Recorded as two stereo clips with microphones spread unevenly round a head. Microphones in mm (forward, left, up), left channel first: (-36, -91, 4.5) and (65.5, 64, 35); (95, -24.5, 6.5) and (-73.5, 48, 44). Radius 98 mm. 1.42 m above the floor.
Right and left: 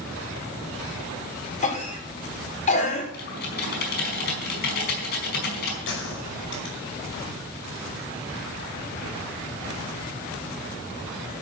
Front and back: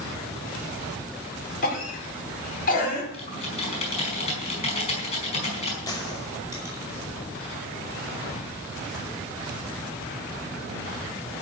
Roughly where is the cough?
Right.